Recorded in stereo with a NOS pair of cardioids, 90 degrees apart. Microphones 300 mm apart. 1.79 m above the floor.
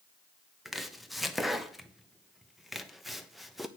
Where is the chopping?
Straight ahead, 0.9 m.